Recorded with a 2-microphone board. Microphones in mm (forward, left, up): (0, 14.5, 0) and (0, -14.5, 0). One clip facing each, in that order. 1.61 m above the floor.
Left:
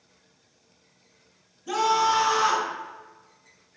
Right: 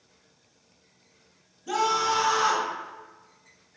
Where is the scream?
5° right (ahead or behind), 1.2 m.